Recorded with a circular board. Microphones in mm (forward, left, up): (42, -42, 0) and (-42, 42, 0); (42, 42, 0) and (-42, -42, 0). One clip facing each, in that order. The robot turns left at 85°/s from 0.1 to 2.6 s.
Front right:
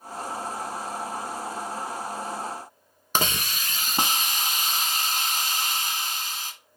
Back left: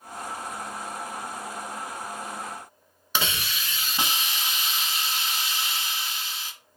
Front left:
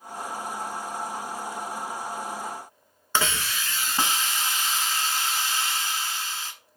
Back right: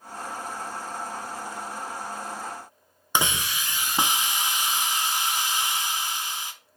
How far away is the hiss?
About 0.7 m.